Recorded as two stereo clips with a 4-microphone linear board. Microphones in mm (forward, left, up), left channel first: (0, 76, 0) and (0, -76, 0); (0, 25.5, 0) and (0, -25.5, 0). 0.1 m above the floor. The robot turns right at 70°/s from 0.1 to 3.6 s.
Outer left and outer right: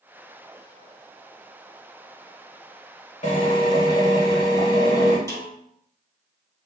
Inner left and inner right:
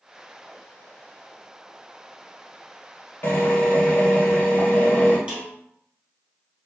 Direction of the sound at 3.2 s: 45° left (ahead or behind).